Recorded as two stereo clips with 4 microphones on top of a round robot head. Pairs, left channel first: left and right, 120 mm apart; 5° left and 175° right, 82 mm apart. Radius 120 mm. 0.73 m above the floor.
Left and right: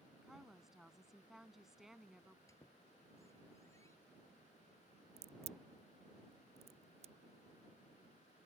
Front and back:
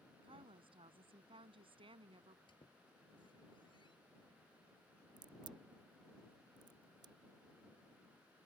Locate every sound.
0.2 s a woman speaking: 175° right
2.5 s a squeak: 25° left
5.2 s a crack: 130° right